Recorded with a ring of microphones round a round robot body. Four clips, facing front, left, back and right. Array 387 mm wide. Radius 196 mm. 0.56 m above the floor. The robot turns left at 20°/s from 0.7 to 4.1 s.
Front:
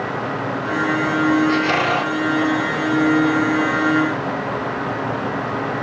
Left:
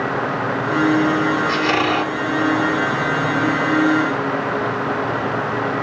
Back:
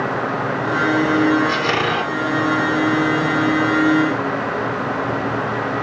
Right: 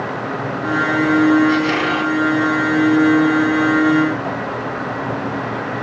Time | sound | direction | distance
1.5 | a squeak | 160° left | 1.8 m